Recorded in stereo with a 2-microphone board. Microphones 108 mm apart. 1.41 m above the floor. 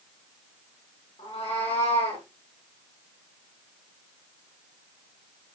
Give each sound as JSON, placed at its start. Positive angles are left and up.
{"t": 1.2, "sound": "a cat meowing", "side_deg": 75, "distance_m": 5.5}